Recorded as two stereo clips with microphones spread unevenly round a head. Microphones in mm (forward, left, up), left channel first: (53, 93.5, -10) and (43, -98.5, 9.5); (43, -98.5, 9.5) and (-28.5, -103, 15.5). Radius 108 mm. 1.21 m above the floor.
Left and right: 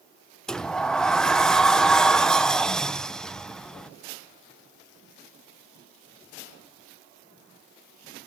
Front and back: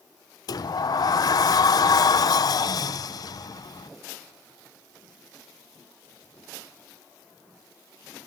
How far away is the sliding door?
About 0.6 m.